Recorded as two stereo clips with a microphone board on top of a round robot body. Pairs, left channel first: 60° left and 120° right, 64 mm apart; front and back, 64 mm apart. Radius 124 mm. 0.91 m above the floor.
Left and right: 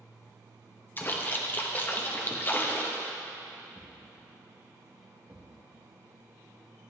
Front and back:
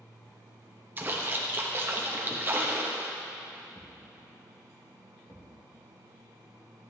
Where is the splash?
120° left, 0.8 m.